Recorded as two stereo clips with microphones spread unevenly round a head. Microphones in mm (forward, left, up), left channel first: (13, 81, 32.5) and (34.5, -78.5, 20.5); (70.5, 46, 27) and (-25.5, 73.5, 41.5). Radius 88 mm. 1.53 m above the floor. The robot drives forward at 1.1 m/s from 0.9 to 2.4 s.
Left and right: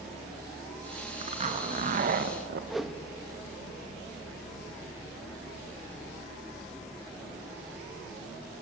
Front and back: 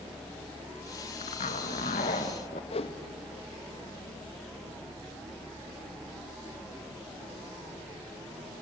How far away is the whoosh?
About 1.4 m.